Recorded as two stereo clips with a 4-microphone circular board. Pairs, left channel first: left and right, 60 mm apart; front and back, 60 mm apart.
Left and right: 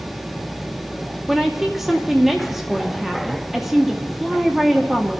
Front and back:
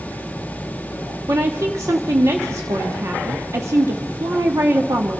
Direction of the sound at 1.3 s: 175° right.